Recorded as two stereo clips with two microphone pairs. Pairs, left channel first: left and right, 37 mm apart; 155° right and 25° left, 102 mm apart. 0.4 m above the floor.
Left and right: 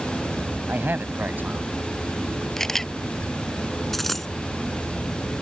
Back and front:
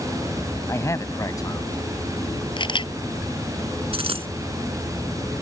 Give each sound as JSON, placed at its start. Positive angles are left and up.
{"t": 0.7, "sound": "a man speaking", "azimuth_deg": -95}
{"t": 2.6, "sound": "a camera shutter", "azimuth_deg": 165}
{"t": 3.9, "sound": "a dropped coin", "azimuth_deg": 5}